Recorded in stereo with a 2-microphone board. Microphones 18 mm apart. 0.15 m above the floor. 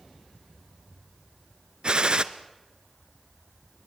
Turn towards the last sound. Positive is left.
turn(degrees=-55)  # may be behind; listen again after turning